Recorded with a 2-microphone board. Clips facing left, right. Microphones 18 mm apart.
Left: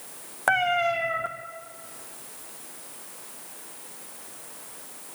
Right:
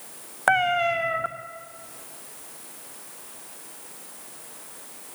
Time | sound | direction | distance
0.5 | a cat meowing | 15° right (ahead or behind) | 1.6 m